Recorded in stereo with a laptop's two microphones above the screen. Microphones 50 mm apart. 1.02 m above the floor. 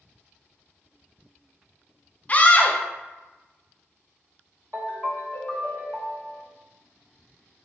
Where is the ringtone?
65° right (ahead or behind), 1.4 m.